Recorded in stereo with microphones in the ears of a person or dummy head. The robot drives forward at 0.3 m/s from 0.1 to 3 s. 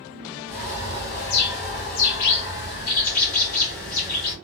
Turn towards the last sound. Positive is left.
turn(degrees=45)  # may be behind; listen again after turning